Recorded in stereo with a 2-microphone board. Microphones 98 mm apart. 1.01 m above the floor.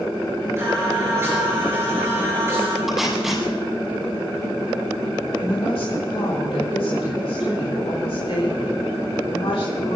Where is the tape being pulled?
Centre (ahead or behind), 5.5 m.